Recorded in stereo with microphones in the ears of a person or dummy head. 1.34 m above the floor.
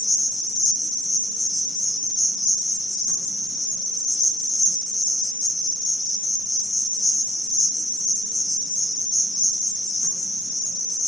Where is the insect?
60° left (ahead or behind), 1.3 m.